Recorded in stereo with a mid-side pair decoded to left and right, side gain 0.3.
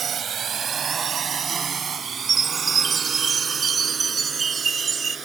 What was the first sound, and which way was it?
A drone, 70° right.